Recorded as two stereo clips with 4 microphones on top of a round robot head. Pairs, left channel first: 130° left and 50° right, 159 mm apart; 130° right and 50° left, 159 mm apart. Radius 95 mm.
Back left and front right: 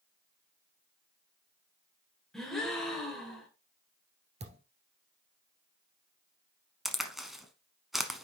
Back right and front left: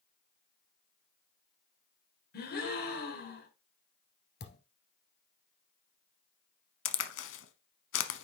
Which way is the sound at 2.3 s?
140° right.